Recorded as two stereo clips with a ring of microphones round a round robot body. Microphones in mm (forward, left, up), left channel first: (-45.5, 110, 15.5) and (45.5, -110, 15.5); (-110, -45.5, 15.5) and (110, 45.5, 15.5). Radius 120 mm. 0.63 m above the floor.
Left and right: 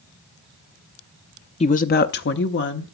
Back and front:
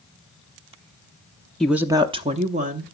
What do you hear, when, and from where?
1.6 s a woman speaking: 120° left, 0.5 m; by 2.9 s 75° left, 1.2 m